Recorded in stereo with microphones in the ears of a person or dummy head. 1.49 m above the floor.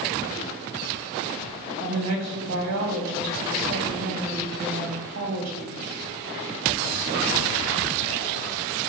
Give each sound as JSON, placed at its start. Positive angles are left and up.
{"t": 1.8, "sound": "a woman speaking", "side_deg": -75, "distance_m": 2.5}